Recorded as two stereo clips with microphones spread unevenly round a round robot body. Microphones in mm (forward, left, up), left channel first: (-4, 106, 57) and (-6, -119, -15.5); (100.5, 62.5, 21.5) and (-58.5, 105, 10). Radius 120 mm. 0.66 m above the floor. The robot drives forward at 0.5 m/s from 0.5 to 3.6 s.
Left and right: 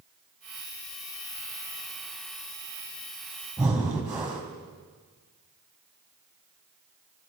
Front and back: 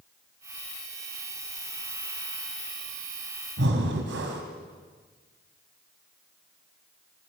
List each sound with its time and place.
3.6 s breathing: 175° right, 3.5 m